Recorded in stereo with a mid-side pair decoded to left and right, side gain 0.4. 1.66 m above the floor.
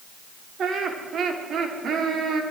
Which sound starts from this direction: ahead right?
Laughter, at 0.6 s.